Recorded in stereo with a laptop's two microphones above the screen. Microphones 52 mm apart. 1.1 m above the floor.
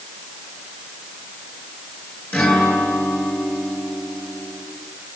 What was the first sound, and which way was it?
A guitar, 30° left (ahead or behind).